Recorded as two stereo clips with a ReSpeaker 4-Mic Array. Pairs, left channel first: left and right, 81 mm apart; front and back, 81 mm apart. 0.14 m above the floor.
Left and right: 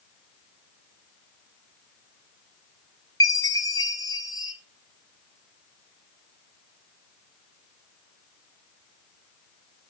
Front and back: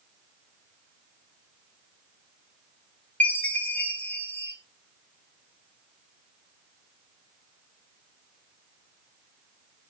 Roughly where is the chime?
Ahead left.